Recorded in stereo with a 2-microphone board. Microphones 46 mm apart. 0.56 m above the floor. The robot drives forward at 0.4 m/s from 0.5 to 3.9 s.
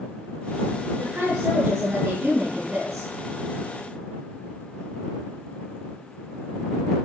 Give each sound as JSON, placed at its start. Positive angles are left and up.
{"t": 0.9, "sound": "a woman speaking", "side_deg": -85, "distance_m": 9.5}